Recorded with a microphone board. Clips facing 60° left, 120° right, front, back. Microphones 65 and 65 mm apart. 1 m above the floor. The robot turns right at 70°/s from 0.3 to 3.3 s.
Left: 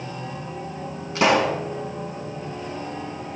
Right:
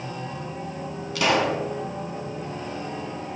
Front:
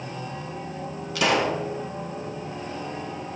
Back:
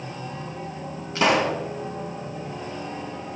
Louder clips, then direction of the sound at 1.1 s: Left 3 dB, back 2 dB; 120° left.